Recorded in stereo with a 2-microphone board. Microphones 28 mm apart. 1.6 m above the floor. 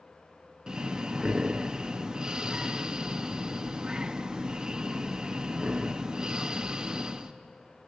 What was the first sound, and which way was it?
Breathing, 25° right (ahead or behind).